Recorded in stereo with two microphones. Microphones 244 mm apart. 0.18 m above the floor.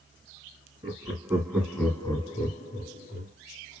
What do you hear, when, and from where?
0.8 s laughter: 25° right (ahead or behind), 2.5 m; by 3.3 s 50° left (ahead or behind), 2.5 m